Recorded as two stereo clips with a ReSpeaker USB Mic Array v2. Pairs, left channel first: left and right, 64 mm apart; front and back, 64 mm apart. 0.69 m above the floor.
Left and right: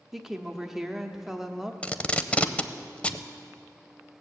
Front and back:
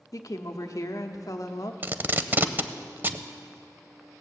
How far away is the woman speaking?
About 1.0 m.